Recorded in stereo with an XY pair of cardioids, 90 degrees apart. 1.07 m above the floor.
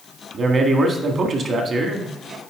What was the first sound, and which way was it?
A man speaking, 50° right.